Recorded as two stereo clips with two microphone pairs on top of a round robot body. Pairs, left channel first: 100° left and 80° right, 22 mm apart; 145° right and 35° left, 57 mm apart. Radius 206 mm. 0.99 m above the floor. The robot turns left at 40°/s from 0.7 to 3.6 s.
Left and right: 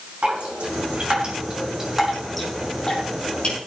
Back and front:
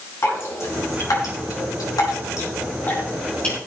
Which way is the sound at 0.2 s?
105° right.